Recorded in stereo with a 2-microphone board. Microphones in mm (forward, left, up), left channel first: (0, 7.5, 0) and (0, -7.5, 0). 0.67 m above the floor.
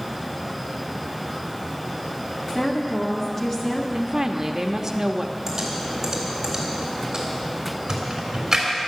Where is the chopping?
I don't hear chopping.